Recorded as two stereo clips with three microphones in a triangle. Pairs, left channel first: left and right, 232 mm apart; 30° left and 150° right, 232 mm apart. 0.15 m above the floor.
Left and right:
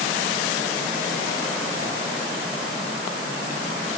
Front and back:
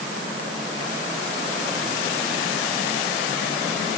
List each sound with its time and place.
Only background noise.